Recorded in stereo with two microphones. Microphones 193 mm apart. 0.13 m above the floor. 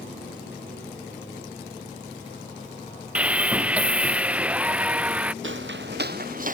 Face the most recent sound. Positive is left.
turn(degrees=-40)  # may be behind; listen again after turning